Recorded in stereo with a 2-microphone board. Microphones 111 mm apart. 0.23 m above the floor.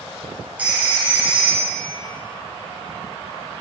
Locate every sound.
0.6 s a phone ringing: 15° right (ahead or behind), 2.0 m